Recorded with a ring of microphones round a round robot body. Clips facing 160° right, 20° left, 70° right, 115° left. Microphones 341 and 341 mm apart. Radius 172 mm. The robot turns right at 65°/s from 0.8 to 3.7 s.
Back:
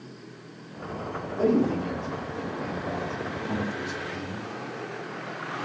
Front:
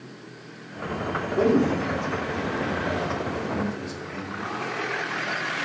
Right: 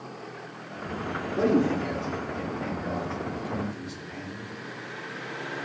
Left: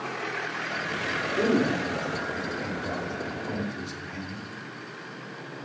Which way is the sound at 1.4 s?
10° right.